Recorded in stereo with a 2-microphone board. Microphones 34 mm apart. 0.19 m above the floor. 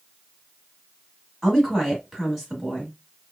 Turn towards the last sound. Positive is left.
turn(degrees=0)  # may be behind; listen again after turning